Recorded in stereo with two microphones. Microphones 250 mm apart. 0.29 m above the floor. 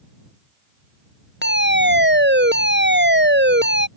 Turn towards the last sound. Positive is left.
turn(degrees=-45)  # may be behind; listen again after turning